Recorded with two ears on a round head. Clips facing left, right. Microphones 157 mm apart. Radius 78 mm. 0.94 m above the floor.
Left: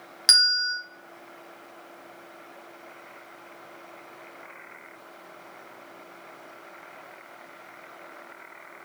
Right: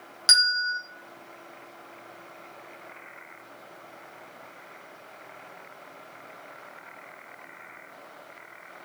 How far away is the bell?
About 0.9 m.